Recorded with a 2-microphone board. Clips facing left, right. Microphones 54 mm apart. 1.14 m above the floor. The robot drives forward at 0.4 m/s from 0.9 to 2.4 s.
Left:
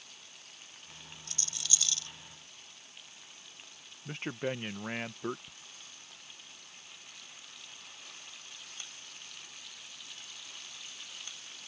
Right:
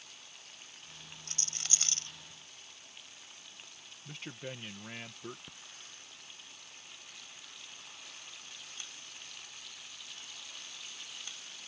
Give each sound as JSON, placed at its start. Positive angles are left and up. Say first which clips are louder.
{"t": 1.3, "sound": "a rattle", "louder": "left 2 dB", "side_deg": -50}
{"t": 4.0, "sound": "a man speaking", "louder": "left 9 dB", "side_deg": 45}
{"t": 5.5, "sound": "a hiss", "louder": "right 1 dB", "side_deg": -45}